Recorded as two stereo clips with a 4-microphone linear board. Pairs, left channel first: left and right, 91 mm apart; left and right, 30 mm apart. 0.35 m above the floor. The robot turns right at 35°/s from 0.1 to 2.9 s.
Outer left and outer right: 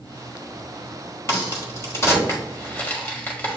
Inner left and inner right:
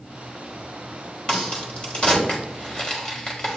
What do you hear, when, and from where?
1.3 s a crack: 30° left (ahead or behind), 1.3 m; by 3.6 s 25° left (ahead or behind), 1.3 m